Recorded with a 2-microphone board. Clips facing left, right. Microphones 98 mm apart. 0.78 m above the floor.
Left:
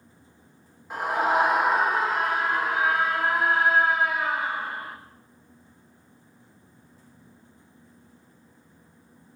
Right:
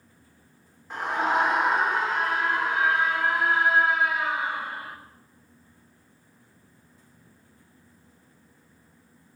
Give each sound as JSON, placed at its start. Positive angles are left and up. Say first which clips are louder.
{"t": 0.9, "sound": "a scream", "louder": "left 2 dB", "side_deg": 10, "distance_m": 3.0}